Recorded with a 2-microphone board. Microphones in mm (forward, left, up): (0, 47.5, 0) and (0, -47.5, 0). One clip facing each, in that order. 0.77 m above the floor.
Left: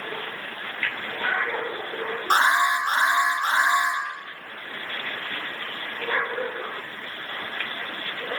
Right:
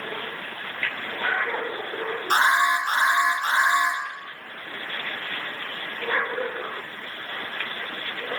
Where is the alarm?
40° left (ahead or behind), 1.6 m.